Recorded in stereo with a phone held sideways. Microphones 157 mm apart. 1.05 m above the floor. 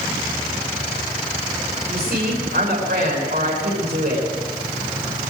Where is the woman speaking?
85° right, 10 m.